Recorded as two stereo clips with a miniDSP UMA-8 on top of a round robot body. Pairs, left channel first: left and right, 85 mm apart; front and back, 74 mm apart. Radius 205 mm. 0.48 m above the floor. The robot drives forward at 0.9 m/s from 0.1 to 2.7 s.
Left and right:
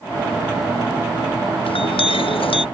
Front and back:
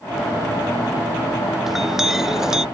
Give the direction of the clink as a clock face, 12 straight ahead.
9 o'clock.